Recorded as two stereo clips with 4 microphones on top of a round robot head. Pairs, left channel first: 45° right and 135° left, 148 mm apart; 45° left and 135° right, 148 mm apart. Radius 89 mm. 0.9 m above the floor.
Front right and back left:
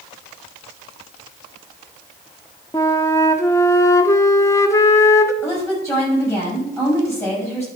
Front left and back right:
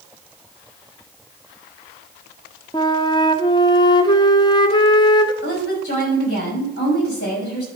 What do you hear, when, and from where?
2.7 s a flute: 10° left, 0.8 m
5.4 s a woman speaking: 25° left, 5.5 m